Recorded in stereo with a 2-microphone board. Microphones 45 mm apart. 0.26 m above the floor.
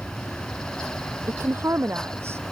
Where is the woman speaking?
70° right (ahead or behind).